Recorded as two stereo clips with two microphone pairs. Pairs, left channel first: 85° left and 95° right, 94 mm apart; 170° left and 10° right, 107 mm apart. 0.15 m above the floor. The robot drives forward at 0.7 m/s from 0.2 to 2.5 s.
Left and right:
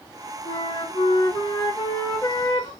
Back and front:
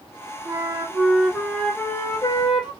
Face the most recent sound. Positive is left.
turn(degrees=130)